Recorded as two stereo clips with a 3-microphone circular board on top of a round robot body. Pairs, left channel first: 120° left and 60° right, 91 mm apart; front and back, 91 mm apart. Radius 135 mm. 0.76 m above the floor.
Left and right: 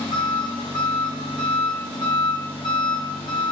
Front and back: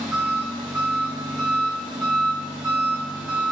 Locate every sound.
0.0 s an engine running: 95° left, 1.3 m